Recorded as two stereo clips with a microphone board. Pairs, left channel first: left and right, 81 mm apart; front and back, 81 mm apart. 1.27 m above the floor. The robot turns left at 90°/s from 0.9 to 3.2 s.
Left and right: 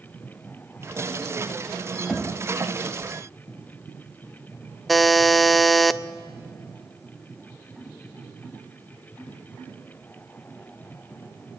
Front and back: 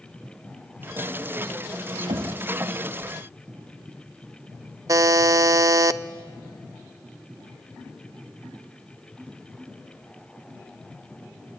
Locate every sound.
2.1 s knocking: 175° right, 2 m; by 2.4 s 160° left, 2 m
4.9 s a buzzer: straight behind, 0.6 m